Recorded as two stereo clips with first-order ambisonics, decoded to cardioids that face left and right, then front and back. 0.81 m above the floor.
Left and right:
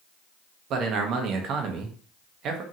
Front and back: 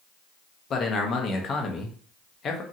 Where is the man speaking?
55° right, 0.6 m.